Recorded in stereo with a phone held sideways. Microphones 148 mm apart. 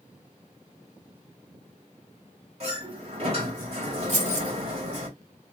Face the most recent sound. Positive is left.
turn(degrees=-55)  # may be behind; listen again after turning